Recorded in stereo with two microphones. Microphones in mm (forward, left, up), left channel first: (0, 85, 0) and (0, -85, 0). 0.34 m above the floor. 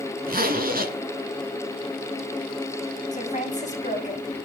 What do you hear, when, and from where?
0.3 s a zipper: 60° right (ahead or behind), 1.1 m
3.1 s a woman speaking: 45° left (ahead or behind), 1.8 m